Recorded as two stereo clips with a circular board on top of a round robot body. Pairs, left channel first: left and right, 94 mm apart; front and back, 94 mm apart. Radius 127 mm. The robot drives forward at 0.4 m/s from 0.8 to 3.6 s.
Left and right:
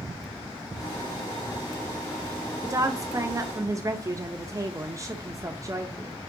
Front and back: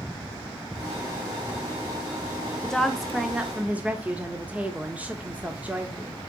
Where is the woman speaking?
75° right, 1.0 m; by 6.1 s 115° right, 1.0 m.